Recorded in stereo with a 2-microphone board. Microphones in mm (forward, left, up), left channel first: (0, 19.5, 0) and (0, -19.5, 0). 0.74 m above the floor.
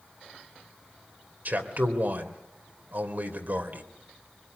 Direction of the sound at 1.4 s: 55° right (ahead or behind).